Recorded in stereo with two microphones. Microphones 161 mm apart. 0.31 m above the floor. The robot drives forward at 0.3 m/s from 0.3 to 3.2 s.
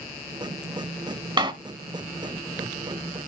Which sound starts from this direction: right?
A door slam, at 1.4 s.